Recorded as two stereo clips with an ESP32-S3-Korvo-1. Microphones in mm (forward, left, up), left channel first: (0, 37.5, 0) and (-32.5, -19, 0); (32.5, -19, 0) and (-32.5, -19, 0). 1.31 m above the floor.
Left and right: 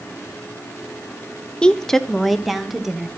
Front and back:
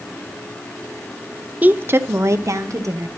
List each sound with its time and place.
1.6 s a woman speaking: 130° left, 0.6 m; by 3.1 s 155° left, 1.6 m